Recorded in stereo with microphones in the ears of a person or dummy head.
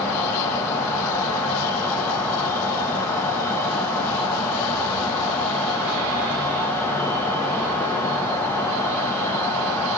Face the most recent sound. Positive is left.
turn(degrees=15)  # may be behind; listen again after turning